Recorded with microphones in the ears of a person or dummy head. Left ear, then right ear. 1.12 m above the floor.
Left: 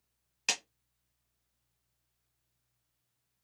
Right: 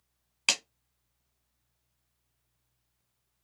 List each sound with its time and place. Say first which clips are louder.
0.5 s a clap: right 5 dB; 20° right (ahead or behind), 0.9 m